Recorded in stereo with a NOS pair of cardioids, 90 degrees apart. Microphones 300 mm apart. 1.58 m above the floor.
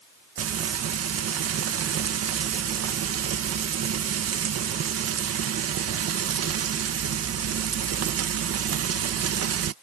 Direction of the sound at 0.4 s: 50° right.